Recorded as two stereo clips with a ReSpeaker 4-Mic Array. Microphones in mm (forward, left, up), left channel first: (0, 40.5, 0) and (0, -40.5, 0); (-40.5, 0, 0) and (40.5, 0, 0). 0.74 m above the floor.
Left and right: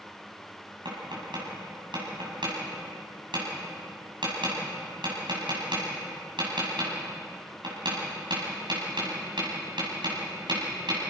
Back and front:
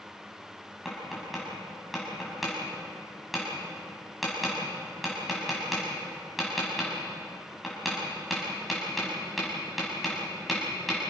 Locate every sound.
0.8 s tapping: 90° right, 7 m